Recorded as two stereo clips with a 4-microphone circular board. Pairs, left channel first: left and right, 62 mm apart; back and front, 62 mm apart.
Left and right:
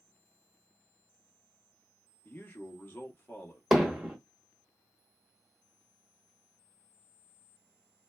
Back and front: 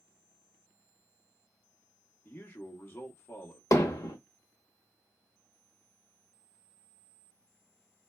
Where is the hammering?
175° right, 0.9 m.